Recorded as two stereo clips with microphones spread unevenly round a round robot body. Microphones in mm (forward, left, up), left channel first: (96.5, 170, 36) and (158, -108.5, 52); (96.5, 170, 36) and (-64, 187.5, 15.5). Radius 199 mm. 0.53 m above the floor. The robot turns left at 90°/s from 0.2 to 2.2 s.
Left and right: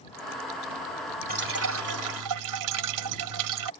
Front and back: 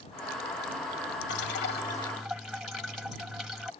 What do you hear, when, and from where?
1.3 s dripping: 15° right; by 3.7 s 100° right